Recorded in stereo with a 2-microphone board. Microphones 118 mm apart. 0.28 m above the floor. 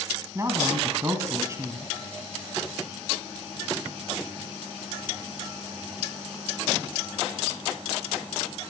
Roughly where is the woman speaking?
Right.